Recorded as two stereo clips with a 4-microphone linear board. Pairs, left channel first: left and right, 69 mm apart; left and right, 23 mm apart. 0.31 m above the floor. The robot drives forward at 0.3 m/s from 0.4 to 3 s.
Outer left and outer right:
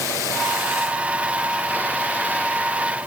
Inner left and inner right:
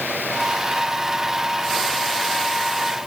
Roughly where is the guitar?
No guitar in this recording.